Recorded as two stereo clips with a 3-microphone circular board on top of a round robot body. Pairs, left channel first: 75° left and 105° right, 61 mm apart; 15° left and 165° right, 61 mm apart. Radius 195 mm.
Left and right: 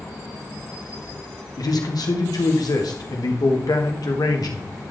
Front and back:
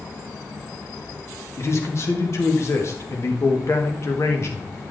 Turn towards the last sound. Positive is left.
turn(degrees=60)